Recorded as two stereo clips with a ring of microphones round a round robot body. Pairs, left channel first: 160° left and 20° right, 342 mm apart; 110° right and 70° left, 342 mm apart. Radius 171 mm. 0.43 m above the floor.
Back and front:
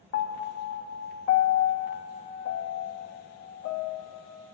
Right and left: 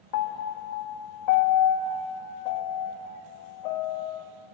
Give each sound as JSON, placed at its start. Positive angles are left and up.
{"t": 0.1, "sound": "a piano", "azimuth_deg": -150, "distance_m": 0.6}